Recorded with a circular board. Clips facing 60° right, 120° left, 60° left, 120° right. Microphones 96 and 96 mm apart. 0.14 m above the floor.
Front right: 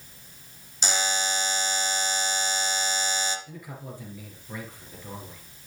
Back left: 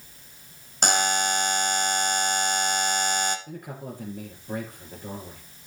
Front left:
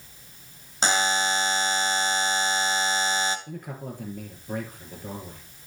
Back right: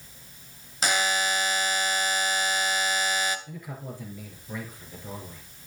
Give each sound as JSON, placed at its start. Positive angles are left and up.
{"t": 0.8, "sound": "a buzzer", "azimuth_deg": 115, "distance_m": 1.3}
{"t": 3.5, "sound": "a man speaking", "azimuth_deg": 90, "distance_m": 3.0}